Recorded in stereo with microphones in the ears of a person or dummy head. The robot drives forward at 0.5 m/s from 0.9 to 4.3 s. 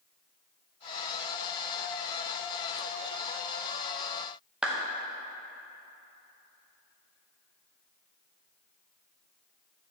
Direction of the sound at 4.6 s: 5° right (ahead or behind).